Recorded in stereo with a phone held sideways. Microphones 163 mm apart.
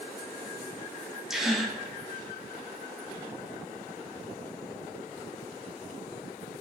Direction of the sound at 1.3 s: Centre (ahead or behind).